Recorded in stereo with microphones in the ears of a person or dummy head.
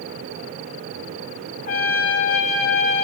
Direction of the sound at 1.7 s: 45° left (ahead or behind).